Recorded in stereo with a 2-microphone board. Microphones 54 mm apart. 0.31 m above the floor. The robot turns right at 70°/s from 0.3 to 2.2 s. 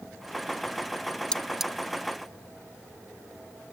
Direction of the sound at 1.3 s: 15° left (ahead or behind).